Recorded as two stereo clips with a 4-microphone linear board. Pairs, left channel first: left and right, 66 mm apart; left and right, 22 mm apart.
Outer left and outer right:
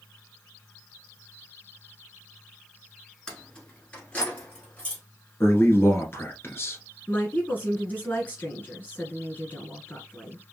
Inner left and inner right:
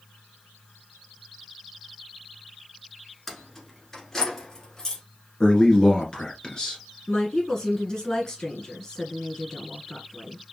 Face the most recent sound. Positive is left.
turn(degrees=25)  # may be behind; listen again after turning